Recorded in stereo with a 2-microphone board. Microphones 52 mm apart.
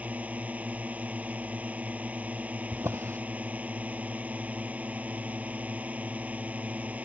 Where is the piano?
I don't hear a piano.